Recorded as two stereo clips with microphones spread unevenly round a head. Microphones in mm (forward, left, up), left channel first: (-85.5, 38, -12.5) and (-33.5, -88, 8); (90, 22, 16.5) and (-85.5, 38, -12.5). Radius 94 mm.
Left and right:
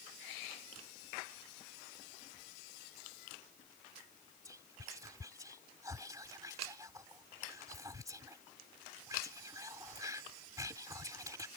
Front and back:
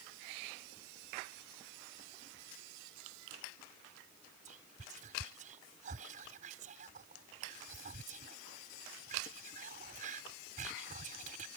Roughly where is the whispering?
Behind right.